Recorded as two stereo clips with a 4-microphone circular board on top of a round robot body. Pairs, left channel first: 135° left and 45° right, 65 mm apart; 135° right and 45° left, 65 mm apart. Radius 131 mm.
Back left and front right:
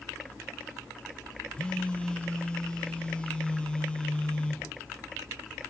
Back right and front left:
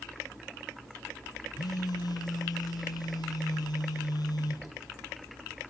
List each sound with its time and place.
1.5 s a phone buzzing: 150° right, 1.3 m